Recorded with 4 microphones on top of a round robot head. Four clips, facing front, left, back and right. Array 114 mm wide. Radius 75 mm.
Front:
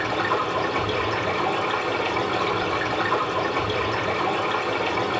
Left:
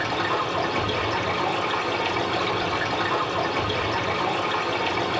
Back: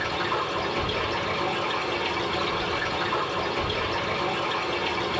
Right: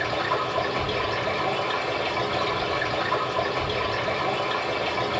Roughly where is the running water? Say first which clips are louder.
Left 1 dB, front 4 dB; ahead left.